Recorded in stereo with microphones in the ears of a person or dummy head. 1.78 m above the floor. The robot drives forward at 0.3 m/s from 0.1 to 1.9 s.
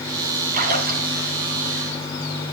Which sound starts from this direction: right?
A splash, at 0.5 s.